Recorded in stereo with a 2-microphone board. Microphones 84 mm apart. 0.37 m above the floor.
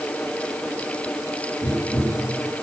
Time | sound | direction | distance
1.6 | tapping | 50° left (ahead or behind) | 4 m